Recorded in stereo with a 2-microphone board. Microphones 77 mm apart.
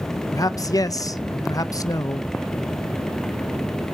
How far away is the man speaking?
About 0.8 m.